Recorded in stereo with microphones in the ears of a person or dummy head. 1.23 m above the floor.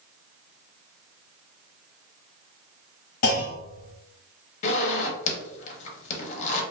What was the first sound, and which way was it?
A clunk, 50° left (ahead or behind).